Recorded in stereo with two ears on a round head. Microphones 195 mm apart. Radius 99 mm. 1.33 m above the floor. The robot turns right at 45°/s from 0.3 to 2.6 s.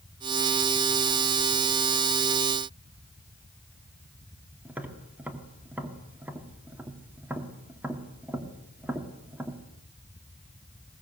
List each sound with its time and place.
4.7 s tapping: 10° right (ahead or behind), 2.0 m